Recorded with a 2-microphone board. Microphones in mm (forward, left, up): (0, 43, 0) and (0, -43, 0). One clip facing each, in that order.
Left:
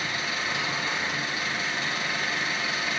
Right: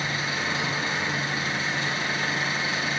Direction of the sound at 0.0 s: 35° right (ahead or behind).